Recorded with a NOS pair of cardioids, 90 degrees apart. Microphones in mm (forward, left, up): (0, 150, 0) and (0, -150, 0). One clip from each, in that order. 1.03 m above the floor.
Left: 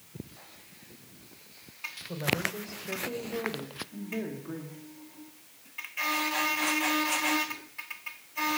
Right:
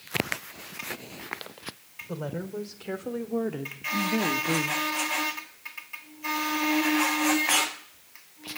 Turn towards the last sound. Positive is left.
turn(degrees=-75)